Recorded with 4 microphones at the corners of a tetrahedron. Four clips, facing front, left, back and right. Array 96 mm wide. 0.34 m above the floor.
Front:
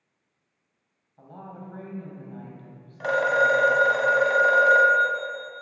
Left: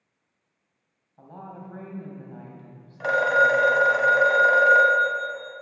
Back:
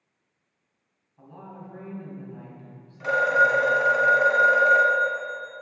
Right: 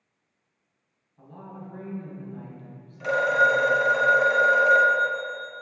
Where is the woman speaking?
60° left, 1.9 m.